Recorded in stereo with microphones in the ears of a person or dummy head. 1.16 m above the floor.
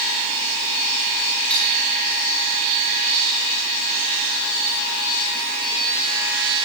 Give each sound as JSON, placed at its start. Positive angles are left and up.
{"t": 1.5, "sound": "cutlery clinking", "side_deg": 0, "distance_m": 7.0}